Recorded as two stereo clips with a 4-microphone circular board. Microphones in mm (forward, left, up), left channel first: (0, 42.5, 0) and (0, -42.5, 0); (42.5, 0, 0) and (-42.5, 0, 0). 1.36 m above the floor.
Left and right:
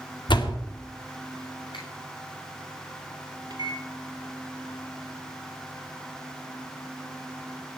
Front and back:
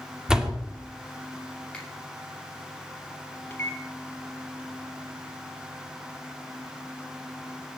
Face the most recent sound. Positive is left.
turn(degrees=-65)